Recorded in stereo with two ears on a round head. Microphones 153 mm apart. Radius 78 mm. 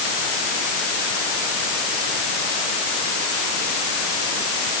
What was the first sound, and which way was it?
Only background noise.